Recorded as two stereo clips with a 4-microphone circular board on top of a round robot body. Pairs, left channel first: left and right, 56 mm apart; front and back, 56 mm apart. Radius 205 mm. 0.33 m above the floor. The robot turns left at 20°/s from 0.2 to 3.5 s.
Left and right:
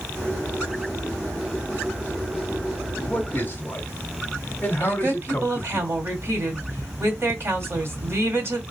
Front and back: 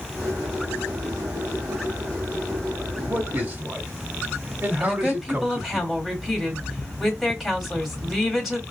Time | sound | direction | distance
3.1 | a man speaking | 140° left | 1.3 m
4.8 | a woman speaking | 95° right | 2.0 m